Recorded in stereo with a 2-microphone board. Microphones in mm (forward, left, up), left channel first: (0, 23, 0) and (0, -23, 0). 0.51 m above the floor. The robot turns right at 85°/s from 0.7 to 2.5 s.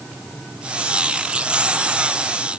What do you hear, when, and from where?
Only background noise.